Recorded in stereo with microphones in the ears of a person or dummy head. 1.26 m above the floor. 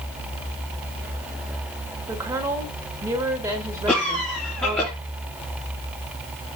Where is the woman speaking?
20° right (ahead or behind), 2.5 m.